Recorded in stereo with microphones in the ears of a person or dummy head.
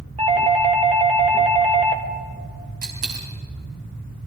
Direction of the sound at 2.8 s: 45° right (ahead or behind).